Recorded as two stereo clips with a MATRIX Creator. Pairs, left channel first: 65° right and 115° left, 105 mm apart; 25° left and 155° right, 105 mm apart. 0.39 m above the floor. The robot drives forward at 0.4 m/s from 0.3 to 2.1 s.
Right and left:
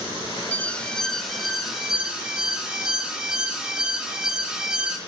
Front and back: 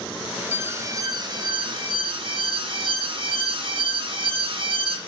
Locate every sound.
0.5 s an alarm: 120° right, 0.5 m; by 5.0 s 165° right, 0.9 m